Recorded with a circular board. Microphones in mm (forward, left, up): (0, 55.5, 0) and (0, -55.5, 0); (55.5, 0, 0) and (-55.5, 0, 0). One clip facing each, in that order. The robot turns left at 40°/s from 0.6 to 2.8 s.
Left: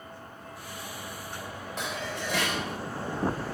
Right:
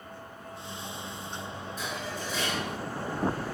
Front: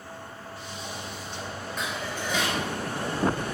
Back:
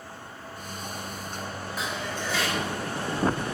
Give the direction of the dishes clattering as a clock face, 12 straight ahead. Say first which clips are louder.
Left 3 dB, even; 9 o'clock.